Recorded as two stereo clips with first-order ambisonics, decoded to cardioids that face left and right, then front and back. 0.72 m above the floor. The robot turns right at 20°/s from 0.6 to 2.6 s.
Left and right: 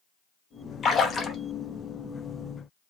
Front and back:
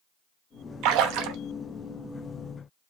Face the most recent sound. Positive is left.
turn(degrees=-165)